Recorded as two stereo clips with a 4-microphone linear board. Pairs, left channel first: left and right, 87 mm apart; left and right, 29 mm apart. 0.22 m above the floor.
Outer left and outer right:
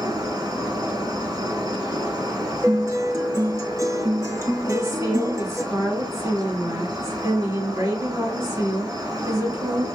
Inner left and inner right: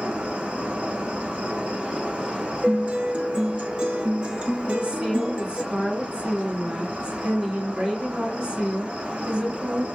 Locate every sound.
0.0 s an insect: 55° right (ahead or behind), 1.1 m
2.6 s a guitar: 40° right (ahead or behind), 0.7 m
4.6 s a woman speaking: 35° right (ahead or behind), 2 m